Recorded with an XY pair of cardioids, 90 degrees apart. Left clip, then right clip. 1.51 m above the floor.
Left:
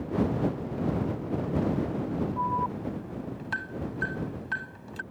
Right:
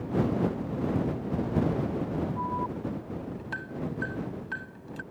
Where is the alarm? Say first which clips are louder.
Left 6 dB; 35° left.